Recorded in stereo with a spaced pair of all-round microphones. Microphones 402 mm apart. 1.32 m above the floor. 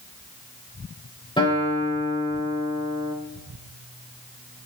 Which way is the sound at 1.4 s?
10° left (ahead or behind).